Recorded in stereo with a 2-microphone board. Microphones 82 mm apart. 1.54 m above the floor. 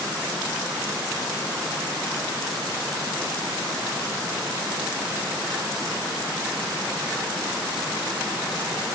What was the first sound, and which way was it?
Only background noise.